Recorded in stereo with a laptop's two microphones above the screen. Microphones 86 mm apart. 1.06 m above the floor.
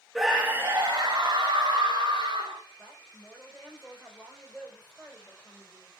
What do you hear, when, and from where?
0.1 s a scream: centre (ahead or behind), 1.1 m; by 2.6 s 60° right (ahead or behind), 3.5 m
2.8 s a woman speaking: centre (ahead or behind), 4.5 m